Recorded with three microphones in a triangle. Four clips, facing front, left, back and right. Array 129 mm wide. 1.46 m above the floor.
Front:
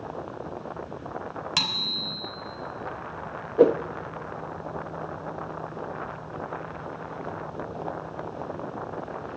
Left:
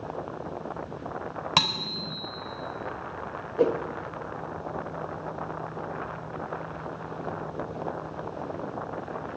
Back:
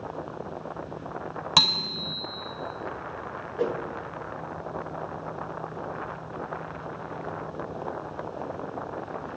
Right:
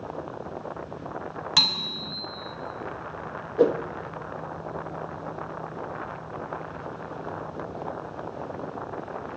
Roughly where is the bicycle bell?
Behind left.